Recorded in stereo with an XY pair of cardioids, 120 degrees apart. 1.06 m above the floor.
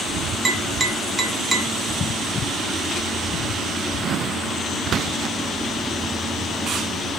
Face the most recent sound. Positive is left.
turn(degrees=-25)